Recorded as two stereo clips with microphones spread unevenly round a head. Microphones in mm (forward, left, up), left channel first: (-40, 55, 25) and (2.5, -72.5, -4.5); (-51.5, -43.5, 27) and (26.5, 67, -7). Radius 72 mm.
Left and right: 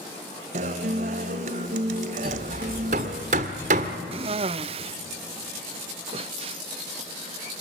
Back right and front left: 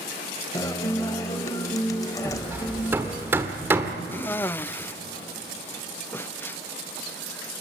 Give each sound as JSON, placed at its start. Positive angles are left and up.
{"t": 0.5, "sound": "a guitar", "azimuth_deg": -90, "distance_m": 1.2}
{"t": 2.2, "sound": "hammering", "azimuth_deg": -30, "distance_m": 1.5}
{"t": 4.1, "sound": "a cough", "azimuth_deg": -45, "distance_m": 0.5}